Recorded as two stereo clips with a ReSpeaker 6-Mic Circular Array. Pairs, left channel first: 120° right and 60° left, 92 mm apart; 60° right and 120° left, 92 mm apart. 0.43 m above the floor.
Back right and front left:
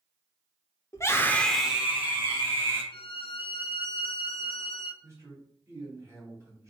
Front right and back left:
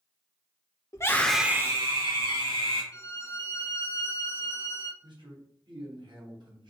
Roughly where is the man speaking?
Left.